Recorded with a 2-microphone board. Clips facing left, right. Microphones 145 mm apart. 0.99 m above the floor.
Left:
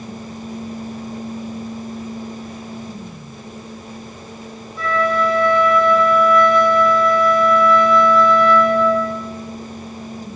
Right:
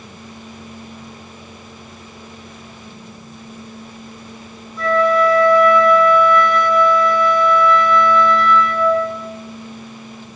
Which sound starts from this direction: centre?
A flute, at 4.8 s.